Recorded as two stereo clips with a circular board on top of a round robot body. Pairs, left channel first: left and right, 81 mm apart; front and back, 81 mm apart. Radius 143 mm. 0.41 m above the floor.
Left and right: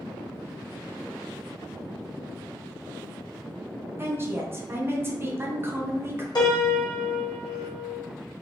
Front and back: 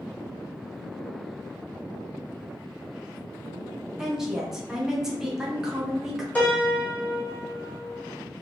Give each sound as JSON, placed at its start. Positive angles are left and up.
{"t": 4.0, "sound": "a woman speaking", "azimuth_deg": -105, "distance_m": 1.0}
{"t": 6.3, "sound": "a piano", "azimuth_deg": 70, "distance_m": 2.0}